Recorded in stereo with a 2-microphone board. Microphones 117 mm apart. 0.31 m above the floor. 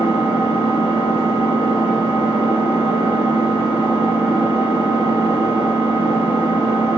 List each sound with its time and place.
0.0 s an engine running: 15° right (ahead or behind), 1.8 m